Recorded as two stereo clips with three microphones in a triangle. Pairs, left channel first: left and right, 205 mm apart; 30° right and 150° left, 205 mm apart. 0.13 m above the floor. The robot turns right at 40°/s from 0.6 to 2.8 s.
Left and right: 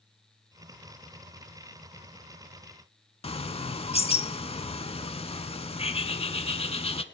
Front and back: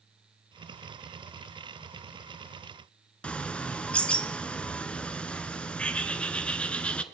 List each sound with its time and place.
3.2 s a bird: 50° left, 0.5 m